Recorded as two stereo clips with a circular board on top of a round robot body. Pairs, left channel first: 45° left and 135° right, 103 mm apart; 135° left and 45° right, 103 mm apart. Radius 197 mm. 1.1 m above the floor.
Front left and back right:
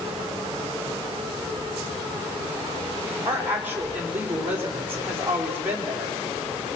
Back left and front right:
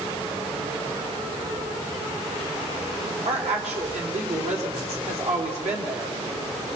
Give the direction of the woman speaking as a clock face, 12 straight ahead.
2 o'clock.